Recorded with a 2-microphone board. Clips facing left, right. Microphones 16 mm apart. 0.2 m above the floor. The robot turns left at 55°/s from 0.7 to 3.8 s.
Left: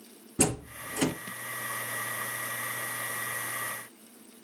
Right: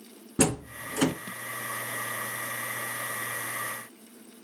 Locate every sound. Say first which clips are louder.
0.4 s a door slam: right 3 dB; 55° right (ahead or behind), 2 m; by 1.1 s 45° right (ahead or behind), 2 m